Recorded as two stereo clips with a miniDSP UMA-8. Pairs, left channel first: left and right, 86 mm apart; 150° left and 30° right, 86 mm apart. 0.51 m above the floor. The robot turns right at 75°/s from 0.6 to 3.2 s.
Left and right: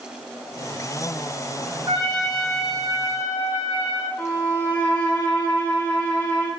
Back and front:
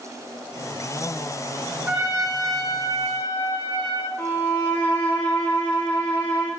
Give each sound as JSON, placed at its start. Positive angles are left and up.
{"t": 1.9, "sound": "a trumpet", "azimuth_deg": -115, "distance_m": 3.5}
{"t": 4.2, "sound": "a violin", "azimuth_deg": 135, "distance_m": 1.1}